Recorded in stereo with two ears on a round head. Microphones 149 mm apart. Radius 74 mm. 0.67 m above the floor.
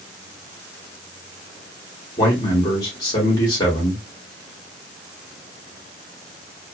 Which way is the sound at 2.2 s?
20° left (ahead or behind).